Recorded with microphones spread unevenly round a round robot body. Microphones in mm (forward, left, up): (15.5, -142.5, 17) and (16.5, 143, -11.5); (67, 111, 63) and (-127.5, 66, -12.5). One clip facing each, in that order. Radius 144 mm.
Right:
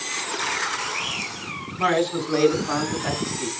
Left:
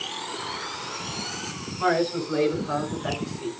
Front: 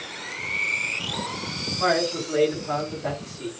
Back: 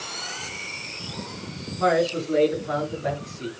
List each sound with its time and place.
1.8 s a man speaking: 70° right, 4 m; by 3.5 s 80° right, 5 m